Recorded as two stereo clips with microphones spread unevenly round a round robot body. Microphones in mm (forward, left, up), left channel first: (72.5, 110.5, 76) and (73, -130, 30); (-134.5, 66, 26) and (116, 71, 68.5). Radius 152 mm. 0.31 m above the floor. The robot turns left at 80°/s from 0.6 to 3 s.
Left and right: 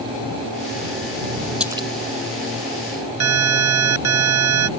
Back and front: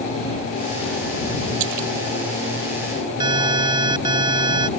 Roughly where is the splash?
Ahead.